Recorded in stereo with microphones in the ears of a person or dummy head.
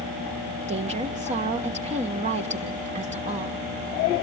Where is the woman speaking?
40° right (ahead or behind), 1.5 m.